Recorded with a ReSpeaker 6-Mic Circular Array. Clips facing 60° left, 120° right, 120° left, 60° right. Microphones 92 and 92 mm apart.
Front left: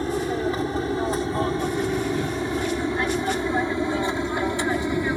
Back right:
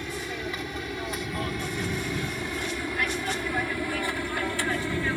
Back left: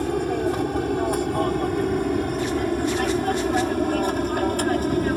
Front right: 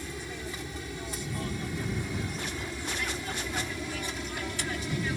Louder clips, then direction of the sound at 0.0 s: Front left 10 dB, back left 17 dB; 110° left.